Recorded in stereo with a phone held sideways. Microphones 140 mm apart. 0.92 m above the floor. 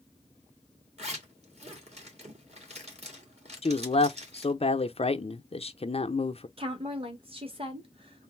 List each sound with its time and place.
1.0 s a zipper: 50° right (ahead or behind), 1.7 m
3.6 s a man speaking: 45° left (ahead or behind), 0.5 m
6.6 s a woman speaking: 40° right (ahead or behind), 1.3 m